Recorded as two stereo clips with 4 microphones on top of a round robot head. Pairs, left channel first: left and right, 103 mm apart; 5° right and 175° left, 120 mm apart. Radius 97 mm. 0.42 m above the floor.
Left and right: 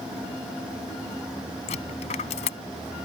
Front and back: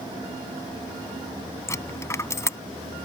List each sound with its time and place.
1.7 s a dropped coin: 65° left